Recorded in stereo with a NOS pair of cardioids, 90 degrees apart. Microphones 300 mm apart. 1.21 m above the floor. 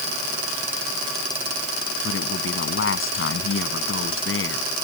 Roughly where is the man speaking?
Ahead left.